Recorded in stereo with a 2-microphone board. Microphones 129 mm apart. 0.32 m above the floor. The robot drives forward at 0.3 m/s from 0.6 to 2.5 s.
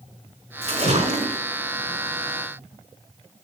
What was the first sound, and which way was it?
A splash, 50° right (ahead or behind).